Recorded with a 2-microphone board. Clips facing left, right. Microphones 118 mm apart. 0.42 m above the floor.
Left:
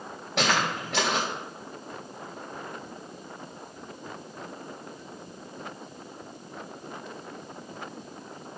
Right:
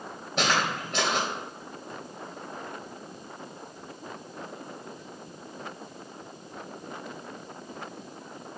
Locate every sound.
0.4 s footsteps: 70° left (ahead or behind), 3 m